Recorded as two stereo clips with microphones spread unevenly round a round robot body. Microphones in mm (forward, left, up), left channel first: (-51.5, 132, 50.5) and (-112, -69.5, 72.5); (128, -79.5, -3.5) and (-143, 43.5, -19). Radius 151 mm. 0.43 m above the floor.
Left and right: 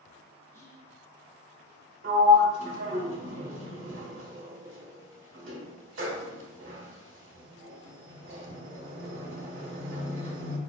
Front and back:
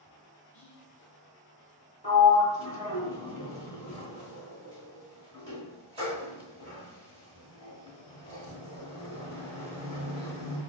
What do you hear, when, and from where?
0.5 s whispering: 55° left, 0.7 m
2.0 s a sliding door: 135° right, 1.4 m